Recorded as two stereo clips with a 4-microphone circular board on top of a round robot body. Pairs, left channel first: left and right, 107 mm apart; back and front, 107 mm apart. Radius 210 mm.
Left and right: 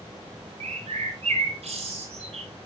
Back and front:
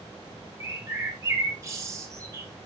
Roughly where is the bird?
Ahead right.